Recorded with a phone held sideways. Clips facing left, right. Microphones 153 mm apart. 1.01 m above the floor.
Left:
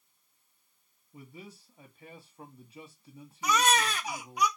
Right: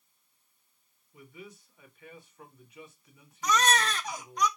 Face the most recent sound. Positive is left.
turn(degrees=10)  # may be behind; listen again after turning